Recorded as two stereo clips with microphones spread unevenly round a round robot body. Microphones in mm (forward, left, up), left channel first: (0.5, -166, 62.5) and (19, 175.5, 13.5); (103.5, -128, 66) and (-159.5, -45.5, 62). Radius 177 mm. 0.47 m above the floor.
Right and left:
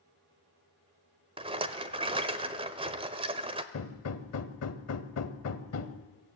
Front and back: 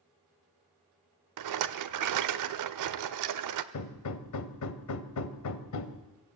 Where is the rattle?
160° left, 0.9 m.